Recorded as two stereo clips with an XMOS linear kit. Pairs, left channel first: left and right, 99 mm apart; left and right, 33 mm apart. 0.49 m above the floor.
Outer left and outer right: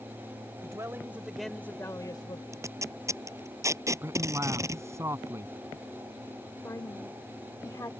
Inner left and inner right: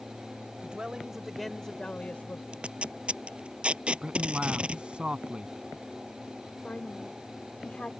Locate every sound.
0.6 s a man speaking: 35° right (ahead or behind); by 2.4 s 50° left (ahead or behind)
2.5 s tape being pulled: 30° right (ahead or behind)
4.0 s a man speaking: 30° right (ahead or behind)
6.6 s a woman speaking: 35° left (ahead or behind)